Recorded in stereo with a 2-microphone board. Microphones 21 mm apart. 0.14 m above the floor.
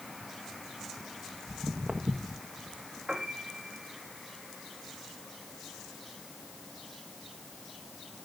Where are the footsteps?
60° right (ahead or behind), 2.5 m.